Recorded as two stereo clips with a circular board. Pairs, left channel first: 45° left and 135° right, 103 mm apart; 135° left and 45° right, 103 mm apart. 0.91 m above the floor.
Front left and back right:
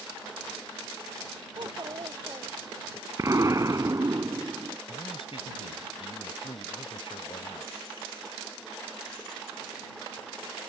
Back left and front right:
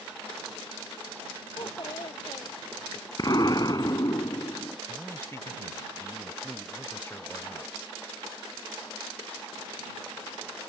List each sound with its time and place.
1.6 s a child speaking: straight behind
3.2 s an explosion: 175° left
4.9 s a man speaking: 70° left